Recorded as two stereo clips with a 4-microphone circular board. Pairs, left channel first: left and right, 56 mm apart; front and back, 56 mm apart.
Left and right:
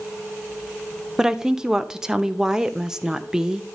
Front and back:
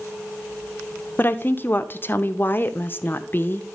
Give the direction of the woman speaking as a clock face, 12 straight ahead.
1 o'clock.